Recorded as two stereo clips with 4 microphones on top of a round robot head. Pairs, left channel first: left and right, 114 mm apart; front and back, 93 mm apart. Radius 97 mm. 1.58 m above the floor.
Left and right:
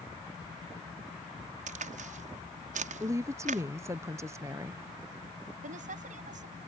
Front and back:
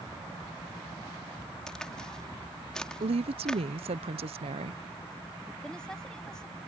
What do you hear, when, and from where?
1.7 s a crack: 85° right
3.0 s a woman speaking: 160° right
5.6 s a woman speaking: 80° right